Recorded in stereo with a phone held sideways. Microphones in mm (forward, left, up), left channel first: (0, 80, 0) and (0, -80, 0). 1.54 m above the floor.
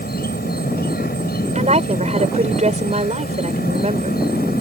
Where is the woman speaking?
45° right (ahead or behind).